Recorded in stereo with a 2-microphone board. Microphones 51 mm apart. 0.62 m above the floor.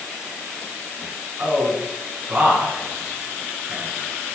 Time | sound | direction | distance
1.4 | a man speaking | 30° right (ahead or behind) | 5.5 m